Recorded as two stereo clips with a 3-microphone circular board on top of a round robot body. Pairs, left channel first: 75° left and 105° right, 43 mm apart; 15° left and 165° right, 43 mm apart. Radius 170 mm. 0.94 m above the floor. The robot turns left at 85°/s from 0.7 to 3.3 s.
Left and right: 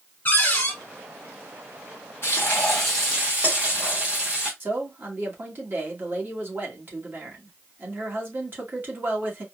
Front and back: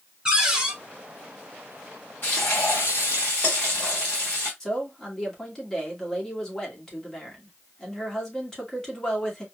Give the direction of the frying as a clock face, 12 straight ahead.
10 o'clock.